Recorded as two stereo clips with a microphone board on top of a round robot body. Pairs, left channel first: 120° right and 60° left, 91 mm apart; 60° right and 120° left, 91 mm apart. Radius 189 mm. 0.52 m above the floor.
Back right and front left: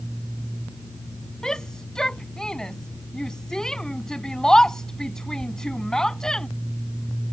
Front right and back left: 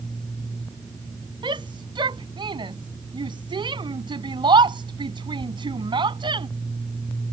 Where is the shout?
155° left.